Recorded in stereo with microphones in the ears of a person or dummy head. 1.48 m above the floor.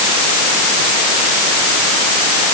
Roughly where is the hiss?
No hiss in this recording.